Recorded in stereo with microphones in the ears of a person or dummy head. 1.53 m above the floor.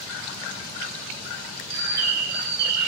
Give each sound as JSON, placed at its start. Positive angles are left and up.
{"t": 1.7, "sound": "a bird", "side_deg": -60, "distance_m": 3.5}